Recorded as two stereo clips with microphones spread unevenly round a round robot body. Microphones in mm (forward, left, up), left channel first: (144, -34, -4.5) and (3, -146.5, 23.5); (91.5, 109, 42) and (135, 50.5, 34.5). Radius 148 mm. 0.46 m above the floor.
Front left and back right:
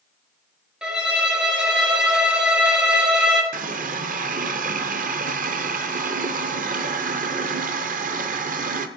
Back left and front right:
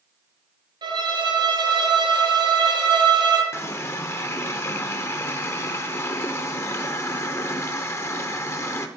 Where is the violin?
55° right, 3 m.